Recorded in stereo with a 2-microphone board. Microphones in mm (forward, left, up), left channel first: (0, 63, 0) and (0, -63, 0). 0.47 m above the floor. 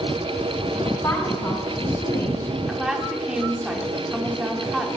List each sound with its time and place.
0.8 s a woman speaking: 25° left (ahead or behind), 4 m
2.7 s a woman speaking: 5° right (ahead or behind), 1.1 m